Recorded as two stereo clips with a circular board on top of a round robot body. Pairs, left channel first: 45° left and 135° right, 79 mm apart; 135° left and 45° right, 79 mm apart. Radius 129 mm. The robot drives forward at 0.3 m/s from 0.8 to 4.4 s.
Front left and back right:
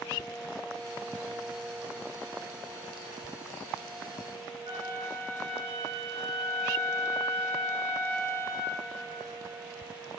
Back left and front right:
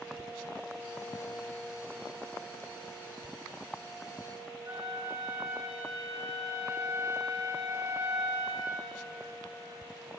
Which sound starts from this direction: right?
A flute, at 4.7 s.